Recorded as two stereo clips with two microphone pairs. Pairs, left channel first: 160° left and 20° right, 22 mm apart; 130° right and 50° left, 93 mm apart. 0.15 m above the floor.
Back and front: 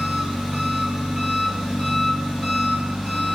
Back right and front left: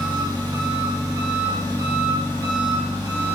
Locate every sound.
0.0 s an engine running: 10° left, 2.5 m